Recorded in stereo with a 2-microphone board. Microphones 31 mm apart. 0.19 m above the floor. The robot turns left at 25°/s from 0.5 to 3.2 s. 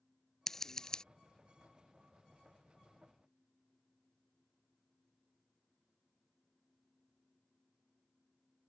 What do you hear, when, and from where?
0.5 s scissors: 15° left (ahead or behind); by 1.0 s 25° left (ahead or behind)